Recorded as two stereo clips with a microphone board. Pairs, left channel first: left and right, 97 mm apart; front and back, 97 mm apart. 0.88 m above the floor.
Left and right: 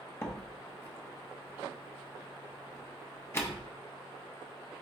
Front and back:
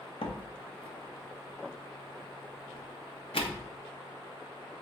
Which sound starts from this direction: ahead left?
A door slam, at 0.2 s.